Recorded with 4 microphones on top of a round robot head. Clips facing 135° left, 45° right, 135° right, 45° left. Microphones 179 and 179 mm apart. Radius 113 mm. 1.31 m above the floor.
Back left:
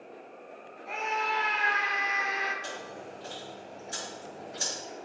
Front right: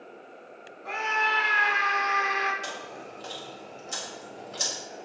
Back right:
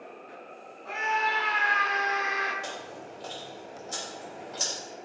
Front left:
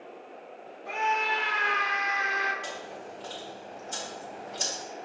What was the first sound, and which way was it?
A scream, 30° right.